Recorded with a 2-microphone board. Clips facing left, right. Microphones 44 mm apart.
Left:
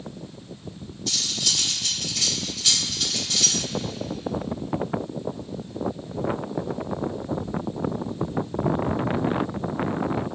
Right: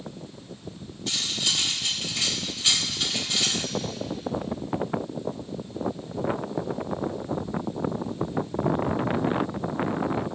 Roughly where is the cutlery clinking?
Right.